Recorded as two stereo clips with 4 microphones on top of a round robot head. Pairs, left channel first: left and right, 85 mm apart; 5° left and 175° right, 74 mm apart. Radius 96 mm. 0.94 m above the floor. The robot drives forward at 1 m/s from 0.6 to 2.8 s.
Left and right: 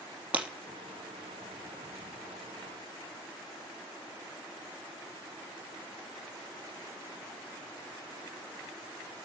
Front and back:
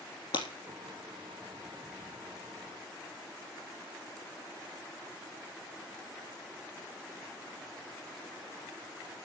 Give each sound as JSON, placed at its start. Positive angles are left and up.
{"t": 0.3, "sound": "breaking glass", "azimuth_deg": -15, "distance_m": 3.0}